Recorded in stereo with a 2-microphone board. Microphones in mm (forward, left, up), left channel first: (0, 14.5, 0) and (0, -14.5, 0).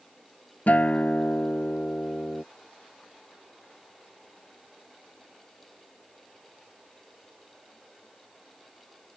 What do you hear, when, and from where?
0.7 s a guitar: 60° left (ahead or behind)